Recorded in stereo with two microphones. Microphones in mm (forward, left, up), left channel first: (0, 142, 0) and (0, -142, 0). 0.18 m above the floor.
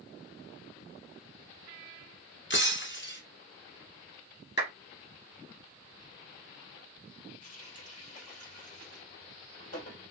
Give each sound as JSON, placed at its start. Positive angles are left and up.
{"t": 2.5, "sound": "breaking glass", "side_deg": 40, "distance_m": 0.9}
{"t": 4.6, "sound": "a clap", "side_deg": 35, "distance_m": 2.5}
{"t": 7.4, "sound": "a running tap", "side_deg": 60, "distance_m": 3.0}